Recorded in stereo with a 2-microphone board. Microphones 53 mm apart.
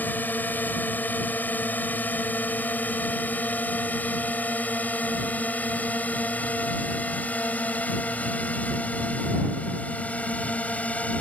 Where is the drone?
35° left (ahead or behind); by 11.2 s 25° left (ahead or behind).